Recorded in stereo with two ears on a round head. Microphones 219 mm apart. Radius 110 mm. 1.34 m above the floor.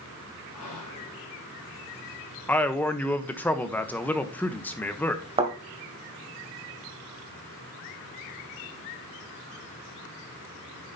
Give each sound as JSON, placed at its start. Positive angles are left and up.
{"t": 0.5, "sound": "whispering", "side_deg": 75, "distance_m": 2.0}
{"t": 2.5, "sound": "a man speaking", "side_deg": 5, "distance_m": 0.9}
{"t": 5.4, "sound": "a thud", "side_deg": -25, "distance_m": 2.0}